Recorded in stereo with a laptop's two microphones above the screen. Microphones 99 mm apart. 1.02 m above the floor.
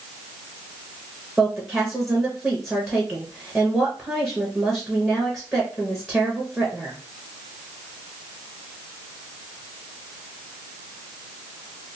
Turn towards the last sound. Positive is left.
turn(degrees=0)  # may be behind; listen again after turning